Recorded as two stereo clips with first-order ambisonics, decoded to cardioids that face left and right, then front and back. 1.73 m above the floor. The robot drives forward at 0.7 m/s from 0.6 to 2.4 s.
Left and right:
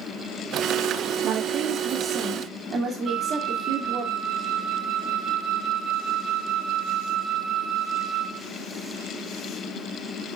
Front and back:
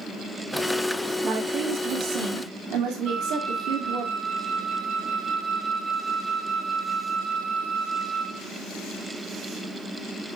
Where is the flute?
135° right, 1.7 m.